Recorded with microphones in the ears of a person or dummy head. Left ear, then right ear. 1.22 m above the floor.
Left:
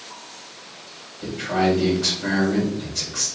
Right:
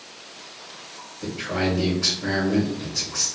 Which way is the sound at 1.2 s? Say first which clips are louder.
Left 4 dB; 15° right (ahead or behind).